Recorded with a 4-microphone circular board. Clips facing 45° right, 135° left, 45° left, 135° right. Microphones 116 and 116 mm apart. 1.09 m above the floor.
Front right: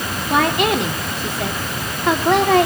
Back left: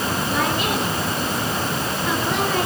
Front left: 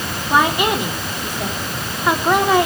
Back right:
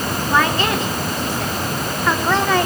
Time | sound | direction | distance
0.3 | a woman speaking | 30° right | 3 m